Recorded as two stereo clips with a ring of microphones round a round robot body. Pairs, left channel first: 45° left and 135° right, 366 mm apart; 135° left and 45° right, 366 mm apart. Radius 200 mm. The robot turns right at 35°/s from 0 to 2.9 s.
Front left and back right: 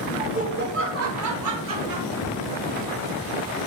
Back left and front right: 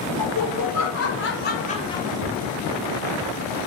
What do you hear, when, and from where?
0.2 s laughter: 150° left, 1.9 m; by 2.1 s 145° right, 1.9 m
2.2 s a cupboard door: 175° left, 2.5 m; by 2.4 s 175° right, 2.5 m